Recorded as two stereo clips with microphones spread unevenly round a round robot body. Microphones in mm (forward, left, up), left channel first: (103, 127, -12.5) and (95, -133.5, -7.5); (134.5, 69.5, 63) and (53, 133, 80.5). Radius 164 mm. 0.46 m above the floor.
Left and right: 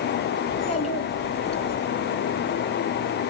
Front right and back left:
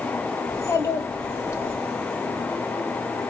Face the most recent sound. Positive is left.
turn(degrees=25)